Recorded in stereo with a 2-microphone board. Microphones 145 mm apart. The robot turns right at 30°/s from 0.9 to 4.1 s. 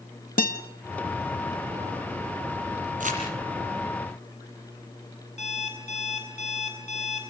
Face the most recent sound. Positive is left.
turn(degrees=50)  # may be behind; listen again after turning